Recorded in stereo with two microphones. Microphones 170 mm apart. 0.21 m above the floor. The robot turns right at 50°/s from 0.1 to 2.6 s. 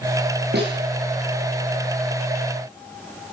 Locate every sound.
0.5 s a snare drum: 80° right, 8 m; by 0.8 s 85° right, 8 m